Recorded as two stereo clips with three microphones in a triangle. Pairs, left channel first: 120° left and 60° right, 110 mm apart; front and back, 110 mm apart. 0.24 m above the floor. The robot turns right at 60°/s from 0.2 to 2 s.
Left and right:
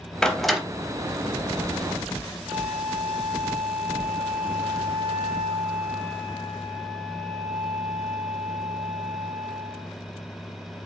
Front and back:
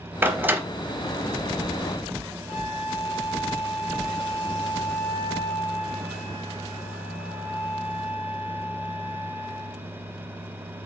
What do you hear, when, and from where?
0.2 s a door slam: 170° right, 0.6 m; by 0.6 s 145° right, 0.6 m
2.5 s a flute: 35° right, 2.5 m